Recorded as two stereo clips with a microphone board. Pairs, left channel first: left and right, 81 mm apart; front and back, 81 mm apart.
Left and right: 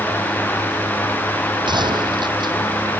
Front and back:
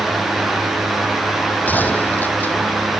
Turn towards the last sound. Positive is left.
turn(degrees=-70)